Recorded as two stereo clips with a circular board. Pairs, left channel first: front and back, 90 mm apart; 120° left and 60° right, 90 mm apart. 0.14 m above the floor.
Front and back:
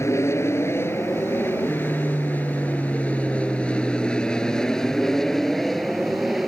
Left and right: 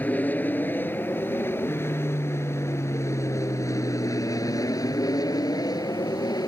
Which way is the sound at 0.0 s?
50° left.